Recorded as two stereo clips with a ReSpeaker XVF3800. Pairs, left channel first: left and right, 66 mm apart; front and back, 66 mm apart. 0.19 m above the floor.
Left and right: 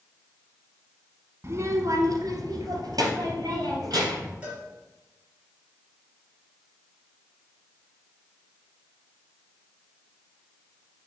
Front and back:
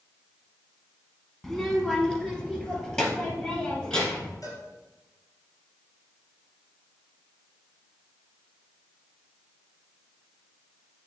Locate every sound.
1.4 s a child speaking: 85° right, 1.0 m; by 4.3 s 75° right, 4.5 m
4.4 s a cowbell: 25° right, 3 m